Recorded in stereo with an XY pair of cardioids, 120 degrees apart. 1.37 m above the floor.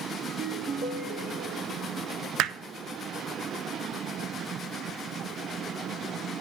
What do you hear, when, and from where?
0.2 s a ringtone: 40° right, 1.6 m
2.4 s hammering: 70° right, 0.6 m